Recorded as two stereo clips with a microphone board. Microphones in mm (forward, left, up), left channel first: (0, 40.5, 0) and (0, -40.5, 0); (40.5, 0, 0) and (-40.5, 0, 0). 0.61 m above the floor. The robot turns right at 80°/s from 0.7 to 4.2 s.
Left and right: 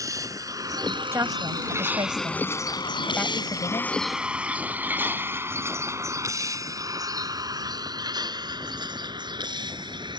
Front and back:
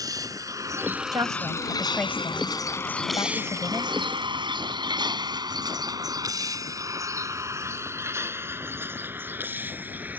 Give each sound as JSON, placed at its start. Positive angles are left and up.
{"t": 0.0, "sound": "a vehicle", "azimuth_deg": -135}
{"t": 1.1, "sound": "a woman speaking", "azimuth_deg": -145}